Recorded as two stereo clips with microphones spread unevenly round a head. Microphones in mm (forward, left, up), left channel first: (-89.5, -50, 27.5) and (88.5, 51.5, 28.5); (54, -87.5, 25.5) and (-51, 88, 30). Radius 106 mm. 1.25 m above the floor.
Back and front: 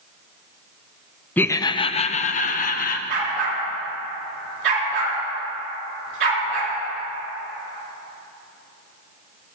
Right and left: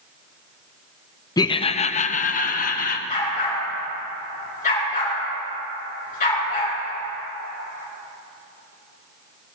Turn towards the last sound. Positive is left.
turn(degrees=-5)